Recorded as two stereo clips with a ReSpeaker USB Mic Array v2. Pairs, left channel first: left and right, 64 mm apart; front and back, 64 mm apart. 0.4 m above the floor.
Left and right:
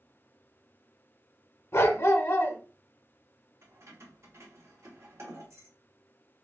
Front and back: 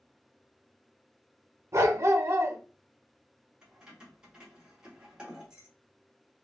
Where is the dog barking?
135° left, 0.6 m.